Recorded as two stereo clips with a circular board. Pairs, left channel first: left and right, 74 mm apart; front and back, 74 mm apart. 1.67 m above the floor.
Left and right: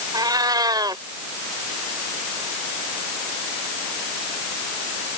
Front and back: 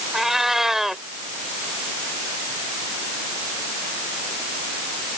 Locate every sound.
0.1 s a cat meowing: 95° right